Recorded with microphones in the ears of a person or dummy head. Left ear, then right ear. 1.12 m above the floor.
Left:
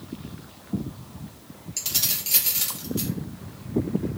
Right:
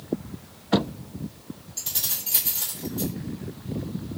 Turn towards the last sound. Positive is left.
turn(degrees=65)  # may be behind; listen again after turning